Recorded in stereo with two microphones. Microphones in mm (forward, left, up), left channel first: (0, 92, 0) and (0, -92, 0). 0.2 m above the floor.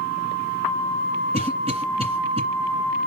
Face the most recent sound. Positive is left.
turn(degrees=-35)  # may be behind; listen again after turning